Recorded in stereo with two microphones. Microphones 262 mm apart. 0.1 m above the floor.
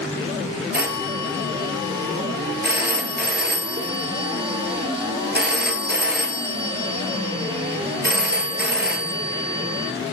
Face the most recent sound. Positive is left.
turn(degrees=-40)  # may be behind; listen again after turning